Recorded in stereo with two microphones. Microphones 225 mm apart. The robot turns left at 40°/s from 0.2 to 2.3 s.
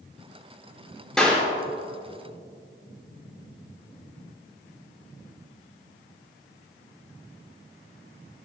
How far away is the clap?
About 5 m.